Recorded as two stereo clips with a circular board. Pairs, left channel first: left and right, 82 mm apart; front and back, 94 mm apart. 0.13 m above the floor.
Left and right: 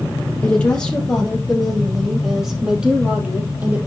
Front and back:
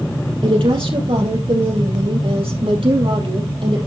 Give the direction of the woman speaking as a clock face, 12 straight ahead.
7 o'clock.